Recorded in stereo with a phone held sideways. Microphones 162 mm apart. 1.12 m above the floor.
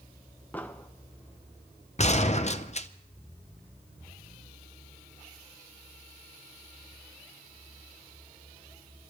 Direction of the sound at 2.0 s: 45° left (ahead or behind).